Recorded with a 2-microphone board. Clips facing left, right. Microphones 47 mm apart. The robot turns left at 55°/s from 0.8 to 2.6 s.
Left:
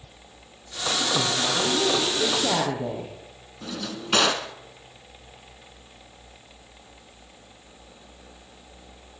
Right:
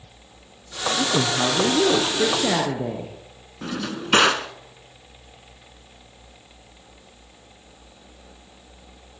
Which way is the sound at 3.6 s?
35° right (ahead or behind).